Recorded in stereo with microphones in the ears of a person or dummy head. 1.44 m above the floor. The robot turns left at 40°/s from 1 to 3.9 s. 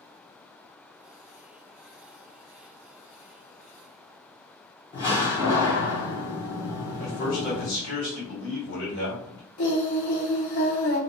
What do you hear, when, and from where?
4.9 s a door slam: 30° left (ahead or behind), 1.3 m
7.0 s a man speaking: 70° left (ahead or behind), 1.9 m
9.6 s singing: 50° left (ahead or behind), 0.8 m